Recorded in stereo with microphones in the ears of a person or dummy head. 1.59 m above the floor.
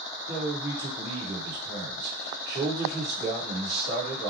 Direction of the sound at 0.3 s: 25° right (ahead or behind).